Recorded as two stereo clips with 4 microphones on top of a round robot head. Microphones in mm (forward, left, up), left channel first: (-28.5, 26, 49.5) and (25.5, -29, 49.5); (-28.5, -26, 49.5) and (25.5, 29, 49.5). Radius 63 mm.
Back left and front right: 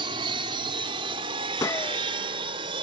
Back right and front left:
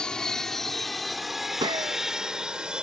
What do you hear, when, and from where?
0.0 s an aircraft: 55° right; by 2.8 s 35° right
1.6 s a gunshot: 80° left